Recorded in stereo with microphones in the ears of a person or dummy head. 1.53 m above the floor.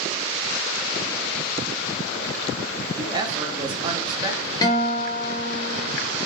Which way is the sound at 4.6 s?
25° left (ahead or behind).